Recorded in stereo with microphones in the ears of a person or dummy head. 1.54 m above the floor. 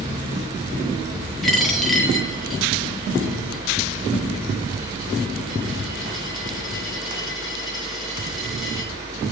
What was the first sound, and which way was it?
A dropped coin, centre (ahead or behind).